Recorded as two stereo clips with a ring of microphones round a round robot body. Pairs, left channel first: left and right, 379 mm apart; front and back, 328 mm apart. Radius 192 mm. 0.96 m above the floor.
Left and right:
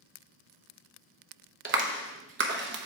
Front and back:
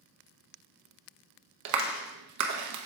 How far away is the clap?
About 0.8 m.